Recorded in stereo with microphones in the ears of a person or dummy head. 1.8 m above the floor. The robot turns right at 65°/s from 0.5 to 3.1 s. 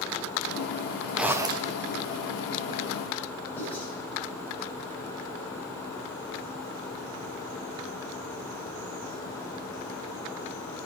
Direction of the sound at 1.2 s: Straight behind.